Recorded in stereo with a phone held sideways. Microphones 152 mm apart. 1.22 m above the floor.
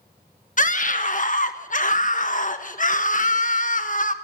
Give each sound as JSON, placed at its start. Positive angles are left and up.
{"t": 0.6, "sound": "a scream", "side_deg": 55, "distance_m": 1.2}